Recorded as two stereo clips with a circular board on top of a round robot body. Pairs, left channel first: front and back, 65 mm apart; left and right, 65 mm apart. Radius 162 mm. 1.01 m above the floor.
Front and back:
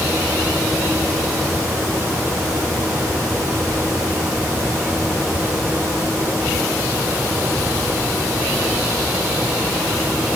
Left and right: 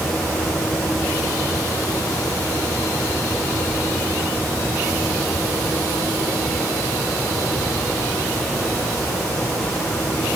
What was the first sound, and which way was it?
Only background noise.